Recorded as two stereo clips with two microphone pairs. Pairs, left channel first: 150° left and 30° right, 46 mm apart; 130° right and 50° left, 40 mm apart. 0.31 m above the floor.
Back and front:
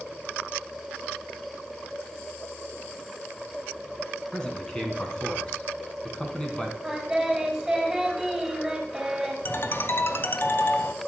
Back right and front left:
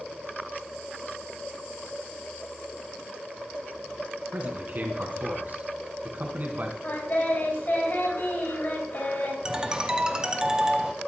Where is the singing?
115° right, 2.5 m.